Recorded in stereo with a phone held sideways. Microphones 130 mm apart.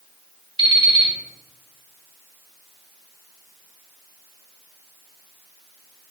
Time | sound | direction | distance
0.6 | an alarm clock | 40° right (ahead or behind) | 1.1 m